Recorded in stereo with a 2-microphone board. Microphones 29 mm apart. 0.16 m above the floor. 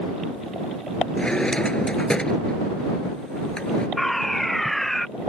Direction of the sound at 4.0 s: 10° left (ahead or behind).